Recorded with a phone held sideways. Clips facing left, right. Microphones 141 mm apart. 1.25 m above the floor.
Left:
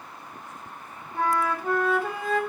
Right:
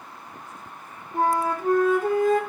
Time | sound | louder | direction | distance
1.1 | a flute | right 3 dB | 45° right (ahead or behind) | 2.5 m